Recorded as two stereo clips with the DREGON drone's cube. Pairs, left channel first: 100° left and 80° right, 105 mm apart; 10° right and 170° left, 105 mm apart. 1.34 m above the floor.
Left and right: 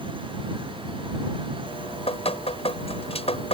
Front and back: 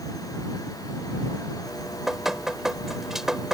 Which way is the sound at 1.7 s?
80° left.